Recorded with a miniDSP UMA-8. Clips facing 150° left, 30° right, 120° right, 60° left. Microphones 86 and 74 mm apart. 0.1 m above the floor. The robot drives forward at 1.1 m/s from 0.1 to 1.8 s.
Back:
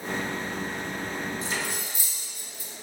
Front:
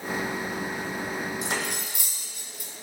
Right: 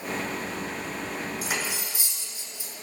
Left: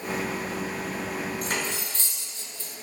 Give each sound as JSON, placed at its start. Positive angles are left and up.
{"t": 1.4, "sound": "cutlery clinking", "azimuth_deg": -35, "distance_m": 3.0}